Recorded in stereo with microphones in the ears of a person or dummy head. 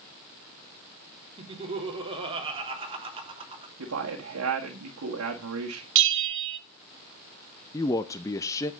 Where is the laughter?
25° right (ahead or behind), 3 m.